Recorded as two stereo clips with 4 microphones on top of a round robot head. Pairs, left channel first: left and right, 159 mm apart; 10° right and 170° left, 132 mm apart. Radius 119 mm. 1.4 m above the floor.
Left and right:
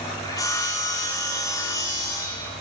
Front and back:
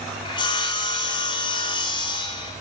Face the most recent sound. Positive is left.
turn(degrees=20)